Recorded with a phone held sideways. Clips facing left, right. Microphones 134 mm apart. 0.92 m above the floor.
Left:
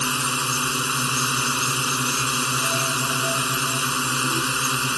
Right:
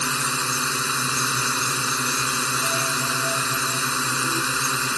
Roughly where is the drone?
Centre.